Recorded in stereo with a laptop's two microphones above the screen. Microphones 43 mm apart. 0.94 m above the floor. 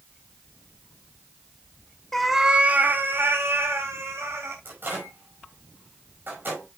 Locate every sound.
2.1 s a cat meowing: 10° left (ahead or behind), 1.0 m; by 4.5 s 75° right (ahead or behind), 3 m
4.7 s a microwave: 50° right (ahead or behind), 5.5 m